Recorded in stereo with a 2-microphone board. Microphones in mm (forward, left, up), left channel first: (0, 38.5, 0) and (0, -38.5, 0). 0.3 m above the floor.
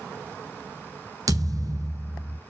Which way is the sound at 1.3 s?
50° right (ahead or behind).